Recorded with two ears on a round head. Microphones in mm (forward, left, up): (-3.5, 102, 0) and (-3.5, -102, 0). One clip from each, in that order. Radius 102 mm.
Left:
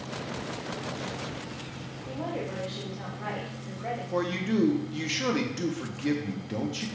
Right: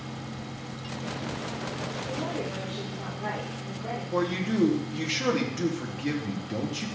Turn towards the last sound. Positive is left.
turn(degrees=5)  # may be behind; listen again after turning